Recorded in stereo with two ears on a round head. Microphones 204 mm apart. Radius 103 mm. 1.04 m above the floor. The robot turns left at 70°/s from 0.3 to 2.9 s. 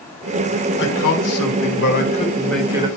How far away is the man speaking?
About 1.4 m.